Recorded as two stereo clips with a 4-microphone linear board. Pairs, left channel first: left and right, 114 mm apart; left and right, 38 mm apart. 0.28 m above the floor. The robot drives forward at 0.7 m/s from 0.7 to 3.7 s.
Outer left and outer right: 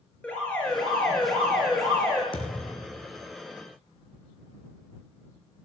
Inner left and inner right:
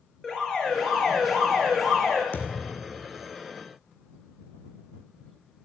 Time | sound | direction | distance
0.2 | an alarm | 10° left (ahead or behind) | 6 m
2.3 | a thud | 50° left (ahead or behind) | 2.5 m